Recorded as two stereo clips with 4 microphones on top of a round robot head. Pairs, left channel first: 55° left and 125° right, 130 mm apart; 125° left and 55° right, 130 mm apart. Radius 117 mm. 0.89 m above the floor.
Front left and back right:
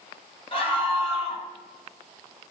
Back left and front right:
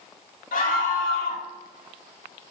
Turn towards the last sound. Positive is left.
turn(degrees=105)